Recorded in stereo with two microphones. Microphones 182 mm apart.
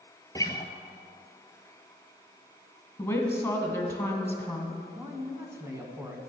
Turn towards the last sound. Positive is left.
turn(degrees=-15)  # may be behind; listen again after turning